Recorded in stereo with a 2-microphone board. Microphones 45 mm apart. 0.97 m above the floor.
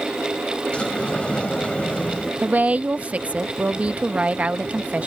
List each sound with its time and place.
0.7 s a sliding door: 25° left (ahead or behind)
2.4 s a woman speaking: 35° right (ahead or behind)